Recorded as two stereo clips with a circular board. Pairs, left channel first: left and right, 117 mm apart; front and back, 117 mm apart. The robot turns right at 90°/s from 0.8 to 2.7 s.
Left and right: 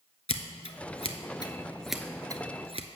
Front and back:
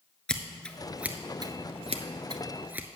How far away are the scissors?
About 0.7 m.